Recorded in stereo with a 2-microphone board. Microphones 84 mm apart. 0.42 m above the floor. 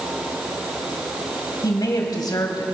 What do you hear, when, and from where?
1.6 s a woman speaking: 55° left (ahead or behind), 2 m